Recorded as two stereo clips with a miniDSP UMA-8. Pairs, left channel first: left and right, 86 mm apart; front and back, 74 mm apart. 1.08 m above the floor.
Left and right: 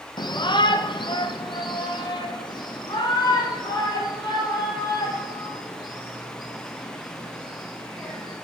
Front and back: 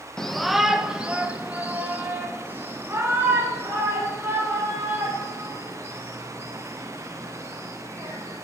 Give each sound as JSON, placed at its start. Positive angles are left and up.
{"t": 0.2, "sound": "a shout", "azimuth_deg": 80, "distance_m": 0.7}